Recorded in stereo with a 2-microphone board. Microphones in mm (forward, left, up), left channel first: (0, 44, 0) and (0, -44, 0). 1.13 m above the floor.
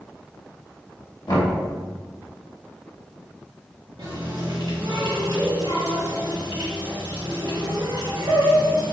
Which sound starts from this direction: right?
A running tap, at 4.0 s.